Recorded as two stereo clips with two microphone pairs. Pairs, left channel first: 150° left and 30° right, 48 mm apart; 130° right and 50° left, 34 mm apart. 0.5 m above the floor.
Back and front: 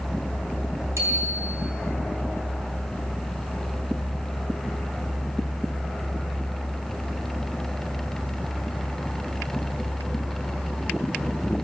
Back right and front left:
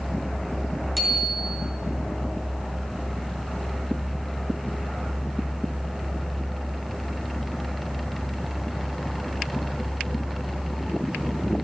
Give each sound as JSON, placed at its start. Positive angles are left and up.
{"t": 1.0, "sound": "a bicycle bell", "azimuth_deg": -35, "distance_m": 5.5}